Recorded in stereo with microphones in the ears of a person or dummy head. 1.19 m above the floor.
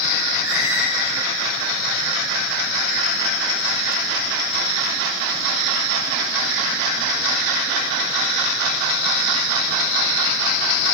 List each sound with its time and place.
0.4 s a squeak: 75° right (ahead or behind), 4.5 m